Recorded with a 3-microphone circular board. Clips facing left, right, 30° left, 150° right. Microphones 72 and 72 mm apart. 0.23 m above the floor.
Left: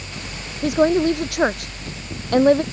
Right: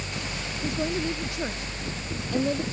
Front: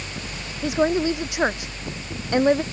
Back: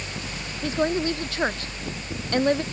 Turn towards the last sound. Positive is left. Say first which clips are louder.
# left 13 dB, front 3 dB
turn(degrees=105)